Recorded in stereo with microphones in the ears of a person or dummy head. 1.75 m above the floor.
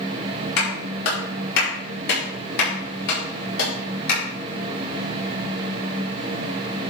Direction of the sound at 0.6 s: 65° left (ahead or behind).